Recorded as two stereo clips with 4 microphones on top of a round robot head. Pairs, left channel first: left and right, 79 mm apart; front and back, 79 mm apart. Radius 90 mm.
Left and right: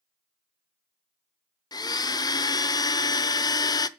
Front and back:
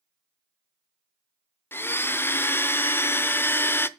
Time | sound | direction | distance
1.7 | a blender | 60° left | 0.7 m